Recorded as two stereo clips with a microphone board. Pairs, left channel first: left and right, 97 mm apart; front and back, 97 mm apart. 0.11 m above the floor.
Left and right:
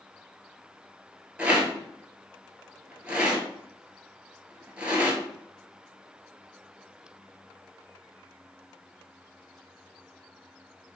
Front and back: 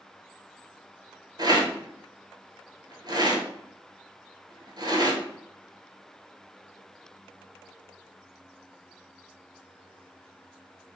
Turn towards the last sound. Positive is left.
turn(degrees=-165)